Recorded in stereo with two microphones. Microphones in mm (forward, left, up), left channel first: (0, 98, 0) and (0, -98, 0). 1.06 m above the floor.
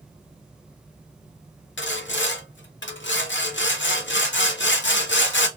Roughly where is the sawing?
Left.